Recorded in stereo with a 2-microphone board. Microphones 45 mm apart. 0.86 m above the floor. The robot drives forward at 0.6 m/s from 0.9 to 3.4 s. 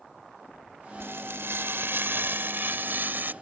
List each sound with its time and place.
1.0 s frying: 65° right (ahead or behind); by 3.3 s 50° right (ahead or behind)